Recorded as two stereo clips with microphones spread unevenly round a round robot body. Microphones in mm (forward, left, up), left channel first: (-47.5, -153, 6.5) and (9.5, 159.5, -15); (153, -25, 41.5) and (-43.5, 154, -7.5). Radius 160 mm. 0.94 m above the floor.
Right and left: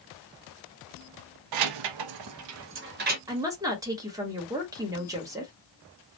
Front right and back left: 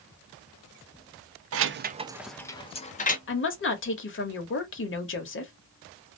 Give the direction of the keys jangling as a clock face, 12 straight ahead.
9 o'clock.